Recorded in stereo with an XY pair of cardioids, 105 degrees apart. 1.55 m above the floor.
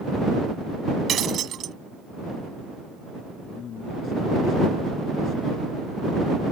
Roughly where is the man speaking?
Ahead left.